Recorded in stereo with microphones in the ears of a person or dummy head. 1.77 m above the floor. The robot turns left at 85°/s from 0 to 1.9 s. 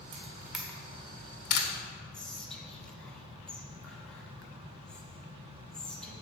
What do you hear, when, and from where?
0.1 s a camera shutter: 45° right (ahead or behind), 0.9 m; by 1.7 s 75° left (ahead or behind), 0.9 m
2.1 s whispering: 20° left (ahead or behind), 1.1 m